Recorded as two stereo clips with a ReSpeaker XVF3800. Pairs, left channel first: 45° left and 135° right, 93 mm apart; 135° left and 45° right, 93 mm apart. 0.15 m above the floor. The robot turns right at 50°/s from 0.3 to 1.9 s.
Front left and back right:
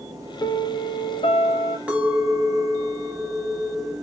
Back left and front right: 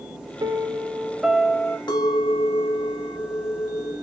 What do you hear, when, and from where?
0.4 s a piano: straight ahead, 0.5 m; by 1.8 s 70° left, 0.5 m
1.9 s a clink: 150° left, 1.3 m; by 3.9 s 155° left, 1.3 m